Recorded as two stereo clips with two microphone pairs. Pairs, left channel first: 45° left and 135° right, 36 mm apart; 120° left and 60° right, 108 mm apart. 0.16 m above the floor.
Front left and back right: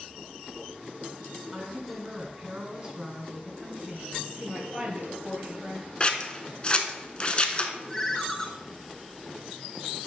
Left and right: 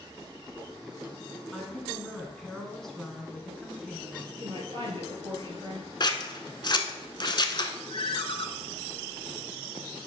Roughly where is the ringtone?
Behind left.